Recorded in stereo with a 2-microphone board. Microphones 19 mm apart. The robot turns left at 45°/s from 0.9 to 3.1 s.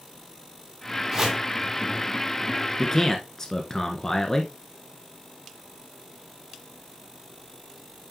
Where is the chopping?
35° right (ahead or behind), 3.5 m; by 1.4 s 25° right (ahead or behind), 3.5 m.